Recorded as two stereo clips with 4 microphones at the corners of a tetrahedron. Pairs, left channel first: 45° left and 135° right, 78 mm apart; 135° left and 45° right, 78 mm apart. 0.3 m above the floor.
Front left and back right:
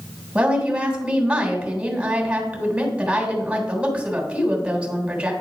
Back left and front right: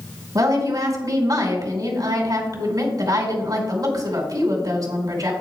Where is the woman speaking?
65° right, 3 m.